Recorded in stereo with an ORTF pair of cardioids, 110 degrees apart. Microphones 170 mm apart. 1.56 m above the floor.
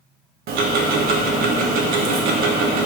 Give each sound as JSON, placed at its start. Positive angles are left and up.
{"t": 0.5, "sound": "ticking", "azimuth_deg": -65, "distance_m": 0.6}